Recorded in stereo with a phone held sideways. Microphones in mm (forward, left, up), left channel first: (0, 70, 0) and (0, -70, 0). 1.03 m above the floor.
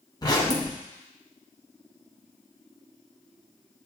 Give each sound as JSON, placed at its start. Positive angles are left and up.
{"t": 0.2, "sound": "a zipper", "side_deg": 30, "distance_m": 1.0}